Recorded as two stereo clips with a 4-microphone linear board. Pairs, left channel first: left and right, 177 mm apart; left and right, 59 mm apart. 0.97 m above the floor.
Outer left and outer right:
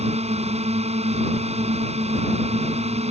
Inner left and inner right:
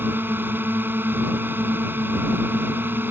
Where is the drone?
35° right (ahead or behind).